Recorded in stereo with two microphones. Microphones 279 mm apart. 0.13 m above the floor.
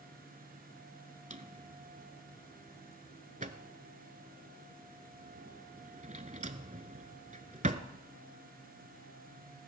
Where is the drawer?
30° right (ahead or behind), 0.7 m.